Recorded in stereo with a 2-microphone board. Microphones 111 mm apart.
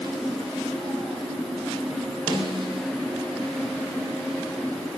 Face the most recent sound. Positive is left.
turn(degrees=-40)  # may be behind; listen again after turning